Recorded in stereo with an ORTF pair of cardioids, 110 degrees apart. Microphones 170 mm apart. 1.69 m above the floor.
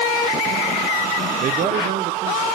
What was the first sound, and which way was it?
A man speaking, 45° right.